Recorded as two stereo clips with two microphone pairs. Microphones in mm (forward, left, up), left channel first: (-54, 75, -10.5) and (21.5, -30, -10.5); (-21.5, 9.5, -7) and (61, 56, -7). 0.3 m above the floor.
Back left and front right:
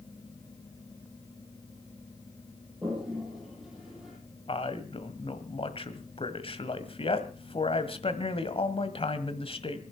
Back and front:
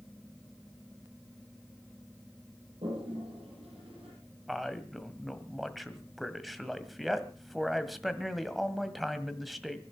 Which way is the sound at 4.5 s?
115° left.